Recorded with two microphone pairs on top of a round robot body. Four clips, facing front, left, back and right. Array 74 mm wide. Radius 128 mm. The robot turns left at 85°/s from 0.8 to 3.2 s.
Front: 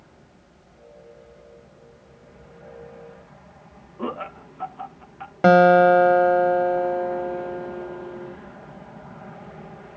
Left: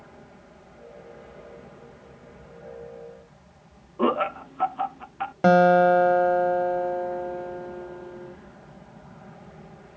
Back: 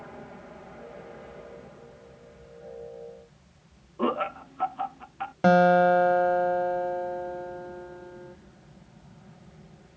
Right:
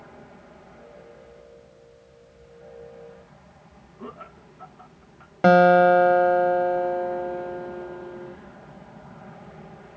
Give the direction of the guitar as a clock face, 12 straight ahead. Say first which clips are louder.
Right 2 dB, front 6 dB; 1 o'clock.